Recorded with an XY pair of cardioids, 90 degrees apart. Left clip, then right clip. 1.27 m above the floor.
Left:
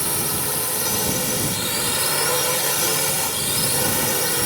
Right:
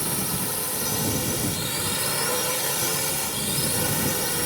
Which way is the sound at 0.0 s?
35° left.